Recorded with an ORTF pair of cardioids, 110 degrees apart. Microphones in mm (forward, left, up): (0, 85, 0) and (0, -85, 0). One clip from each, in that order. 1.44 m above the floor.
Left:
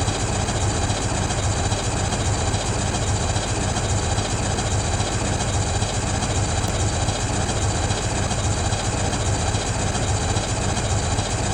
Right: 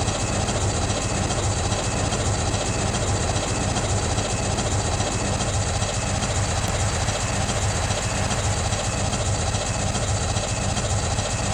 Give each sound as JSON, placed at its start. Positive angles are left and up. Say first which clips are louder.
{"t": 0.0, "sound": "an engine running", "louder": "even", "azimuth_deg": -10, "distance_m": 2.0}